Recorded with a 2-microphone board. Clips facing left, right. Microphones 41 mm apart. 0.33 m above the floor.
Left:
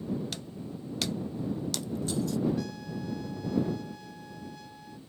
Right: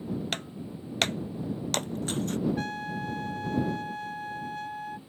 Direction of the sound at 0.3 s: 55° right (ahead or behind).